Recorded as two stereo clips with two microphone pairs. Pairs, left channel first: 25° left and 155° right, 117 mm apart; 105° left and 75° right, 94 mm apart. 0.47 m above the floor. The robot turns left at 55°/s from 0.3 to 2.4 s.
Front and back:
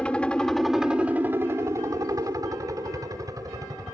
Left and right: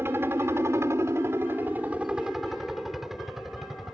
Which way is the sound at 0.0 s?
45° right.